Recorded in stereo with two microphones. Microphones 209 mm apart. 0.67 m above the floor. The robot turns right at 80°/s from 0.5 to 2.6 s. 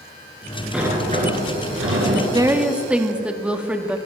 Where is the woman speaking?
20° right (ahead or behind), 0.8 m; by 4.0 s 5° right (ahead or behind), 0.8 m.